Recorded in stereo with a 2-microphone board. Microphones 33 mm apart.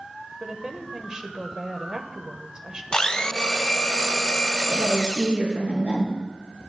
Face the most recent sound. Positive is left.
turn(degrees=-60)  # may be behind; listen again after turning